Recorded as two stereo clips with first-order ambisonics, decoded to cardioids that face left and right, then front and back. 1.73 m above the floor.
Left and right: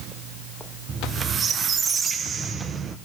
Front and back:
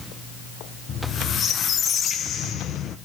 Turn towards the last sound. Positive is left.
turn(degrees=-35)